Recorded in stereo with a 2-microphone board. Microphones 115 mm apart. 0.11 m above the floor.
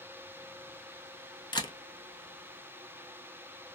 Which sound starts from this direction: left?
A camera shutter, at 1.5 s.